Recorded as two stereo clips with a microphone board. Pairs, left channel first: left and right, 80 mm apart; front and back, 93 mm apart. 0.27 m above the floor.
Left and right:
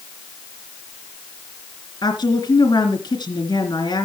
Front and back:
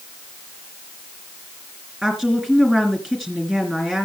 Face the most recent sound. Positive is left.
turn(degrees=100)